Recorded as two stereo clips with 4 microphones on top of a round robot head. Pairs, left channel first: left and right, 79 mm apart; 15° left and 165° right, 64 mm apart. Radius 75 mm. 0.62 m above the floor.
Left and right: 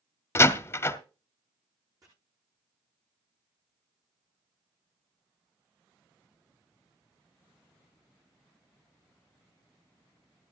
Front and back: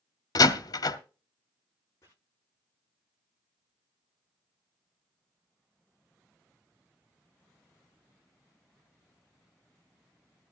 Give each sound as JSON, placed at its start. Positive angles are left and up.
{"t": 0.3, "sound": "a door slam", "azimuth_deg": 30, "distance_m": 1.2}
{"t": 2.0, "sound": "chopping", "azimuth_deg": -45, "distance_m": 7.5}